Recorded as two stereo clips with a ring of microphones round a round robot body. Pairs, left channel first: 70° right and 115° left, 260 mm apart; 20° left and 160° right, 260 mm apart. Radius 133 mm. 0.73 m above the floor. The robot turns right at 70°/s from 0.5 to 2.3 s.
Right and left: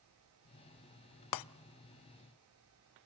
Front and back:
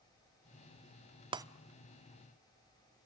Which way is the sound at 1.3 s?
85° right.